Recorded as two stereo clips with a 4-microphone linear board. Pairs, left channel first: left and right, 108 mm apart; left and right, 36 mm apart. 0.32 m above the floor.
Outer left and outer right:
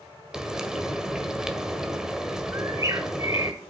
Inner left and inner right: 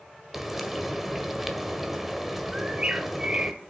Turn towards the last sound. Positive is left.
turn(degrees=-30)  # may be behind; listen again after turning